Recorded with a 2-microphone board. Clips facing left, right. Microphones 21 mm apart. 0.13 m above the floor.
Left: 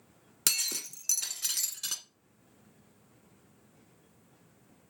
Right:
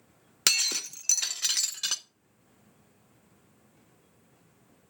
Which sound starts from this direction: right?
Breaking glass, at 0.5 s.